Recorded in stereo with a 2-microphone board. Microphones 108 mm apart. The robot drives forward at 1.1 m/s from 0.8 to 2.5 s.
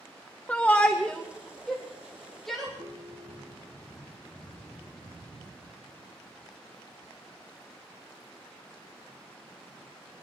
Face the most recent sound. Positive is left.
turn(degrees=-55)  # may be behind; listen again after turning